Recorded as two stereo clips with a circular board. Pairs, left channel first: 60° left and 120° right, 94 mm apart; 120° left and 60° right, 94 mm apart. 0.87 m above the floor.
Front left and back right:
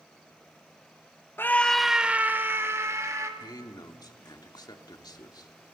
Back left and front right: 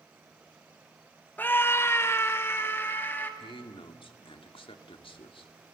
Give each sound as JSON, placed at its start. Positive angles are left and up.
{"t": 1.4, "sound": "a scream", "azimuth_deg": 85, "distance_m": 0.7}
{"t": 3.4, "sound": "a man speaking", "azimuth_deg": 105, "distance_m": 1.9}